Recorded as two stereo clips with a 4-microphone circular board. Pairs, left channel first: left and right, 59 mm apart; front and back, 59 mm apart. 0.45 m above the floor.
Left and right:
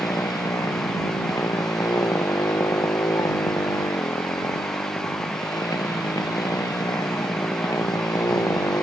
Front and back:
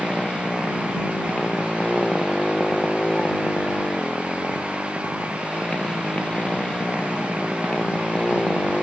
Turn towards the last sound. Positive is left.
turn(degrees=75)